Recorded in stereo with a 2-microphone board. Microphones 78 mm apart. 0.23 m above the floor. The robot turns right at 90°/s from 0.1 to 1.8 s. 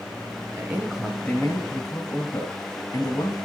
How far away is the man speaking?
About 1.8 m.